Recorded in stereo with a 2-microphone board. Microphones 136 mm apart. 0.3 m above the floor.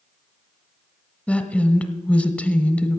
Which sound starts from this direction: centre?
A woman speaking, at 1.3 s.